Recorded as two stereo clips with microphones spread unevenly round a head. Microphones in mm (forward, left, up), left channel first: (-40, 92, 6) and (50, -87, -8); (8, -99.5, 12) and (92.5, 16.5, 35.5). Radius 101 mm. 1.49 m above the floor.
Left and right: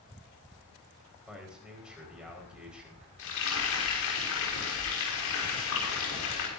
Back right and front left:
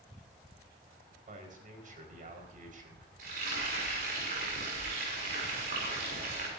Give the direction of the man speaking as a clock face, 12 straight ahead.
11 o'clock.